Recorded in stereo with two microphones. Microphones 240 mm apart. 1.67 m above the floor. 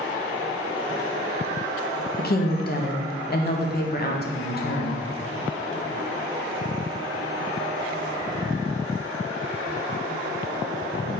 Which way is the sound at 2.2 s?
40° left (ahead or behind).